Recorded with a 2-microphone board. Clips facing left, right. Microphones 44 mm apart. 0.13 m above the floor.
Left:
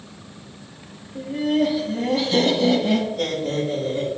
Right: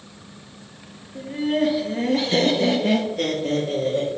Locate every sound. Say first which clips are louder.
1.1 s laughter: left 1 dB; 25° right (ahead or behind), 1.5 m; by 4.1 s 55° right (ahead or behind), 3 m